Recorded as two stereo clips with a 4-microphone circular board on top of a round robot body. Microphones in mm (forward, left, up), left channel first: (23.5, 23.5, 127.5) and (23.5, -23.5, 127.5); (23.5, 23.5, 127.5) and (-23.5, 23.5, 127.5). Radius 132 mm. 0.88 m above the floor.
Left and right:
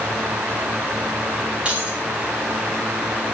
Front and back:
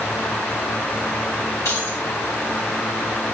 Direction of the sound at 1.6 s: 25° right.